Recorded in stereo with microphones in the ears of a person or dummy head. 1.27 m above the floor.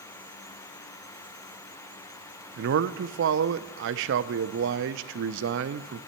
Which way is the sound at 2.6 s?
65° right (ahead or behind).